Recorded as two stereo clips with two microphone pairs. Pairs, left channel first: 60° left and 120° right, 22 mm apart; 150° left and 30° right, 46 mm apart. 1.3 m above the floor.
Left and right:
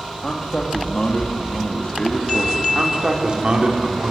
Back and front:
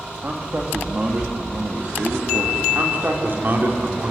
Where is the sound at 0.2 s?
15° left, 2 m.